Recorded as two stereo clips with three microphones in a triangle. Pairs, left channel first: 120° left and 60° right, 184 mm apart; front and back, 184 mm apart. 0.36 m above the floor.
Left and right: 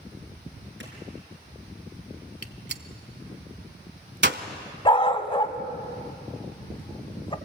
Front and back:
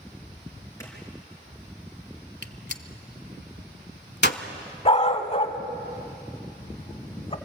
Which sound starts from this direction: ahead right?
A gunshot, at 2.4 s.